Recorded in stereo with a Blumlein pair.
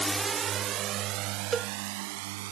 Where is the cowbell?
20° right.